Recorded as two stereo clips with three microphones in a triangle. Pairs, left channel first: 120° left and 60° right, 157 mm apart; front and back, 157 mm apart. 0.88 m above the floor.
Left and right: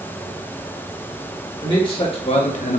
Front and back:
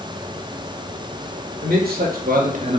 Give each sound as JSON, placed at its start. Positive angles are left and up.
{"t": 1.6, "sound": "a man speaking", "azimuth_deg": 180, "distance_m": 2.0}